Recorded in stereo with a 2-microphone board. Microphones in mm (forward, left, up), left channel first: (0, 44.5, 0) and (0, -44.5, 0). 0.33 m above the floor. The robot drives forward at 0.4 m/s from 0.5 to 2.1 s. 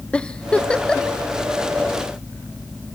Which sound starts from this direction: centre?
A giggle, at 0.1 s.